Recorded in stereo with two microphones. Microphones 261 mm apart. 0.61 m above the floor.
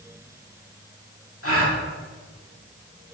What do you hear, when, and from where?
1.4 s a gasp: 60° left (ahead or behind), 1.7 m